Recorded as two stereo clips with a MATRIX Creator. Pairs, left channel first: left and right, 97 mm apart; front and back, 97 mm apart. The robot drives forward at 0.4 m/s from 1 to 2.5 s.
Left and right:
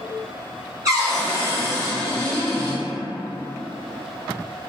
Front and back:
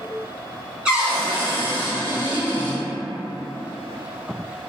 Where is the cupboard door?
100° right, 1.2 m; by 2.8 s 140° right, 1.4 m.